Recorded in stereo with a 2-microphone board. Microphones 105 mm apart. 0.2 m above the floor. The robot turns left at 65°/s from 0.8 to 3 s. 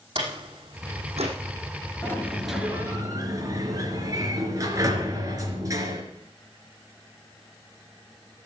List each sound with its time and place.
0.1 s a door slam: 60° right (ahead or behind), 5.5 m; by 1.3 s 80° right, 5.5 m
2.0 s a sliding door: 30° left, 3 m; by 6.0 s 35° right, 3 m